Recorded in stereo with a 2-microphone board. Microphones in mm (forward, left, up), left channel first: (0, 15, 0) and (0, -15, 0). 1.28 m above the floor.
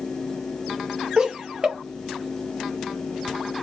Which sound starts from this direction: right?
Laughter, at 1.2 s.